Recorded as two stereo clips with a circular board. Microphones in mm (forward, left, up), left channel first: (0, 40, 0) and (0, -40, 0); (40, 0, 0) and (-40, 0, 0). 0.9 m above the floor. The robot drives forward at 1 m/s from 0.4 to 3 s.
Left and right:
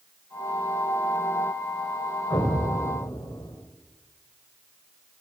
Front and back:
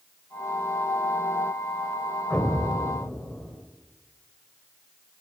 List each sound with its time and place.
2.3 s an explosion: 70° left, 4 m; by 3.5 s 85° left, 3.5 m